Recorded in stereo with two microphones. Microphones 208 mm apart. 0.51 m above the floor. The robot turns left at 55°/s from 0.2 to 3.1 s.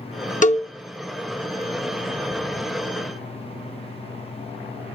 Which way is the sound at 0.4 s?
40° left (ahead or behind).